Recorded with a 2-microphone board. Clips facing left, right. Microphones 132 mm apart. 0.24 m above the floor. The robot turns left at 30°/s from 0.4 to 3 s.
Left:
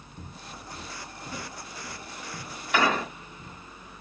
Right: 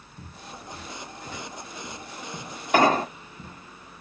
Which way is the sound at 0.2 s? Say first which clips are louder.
Right 1 dB; 50° left (ahead or behind).